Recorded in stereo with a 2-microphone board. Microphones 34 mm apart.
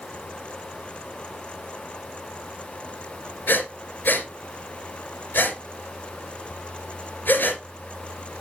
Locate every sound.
3.5 s breathing: 75° left (ahead or behind), 2.5 m